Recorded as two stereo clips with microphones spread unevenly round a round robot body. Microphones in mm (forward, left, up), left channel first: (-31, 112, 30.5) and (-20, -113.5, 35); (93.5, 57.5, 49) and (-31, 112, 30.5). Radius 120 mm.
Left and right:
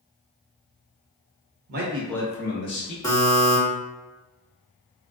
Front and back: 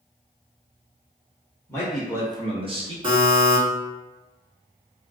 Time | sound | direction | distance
1.7 | a man speaking | 95° right | 0.7 m
3.0 | a buzzer | 160° left | 1.5 m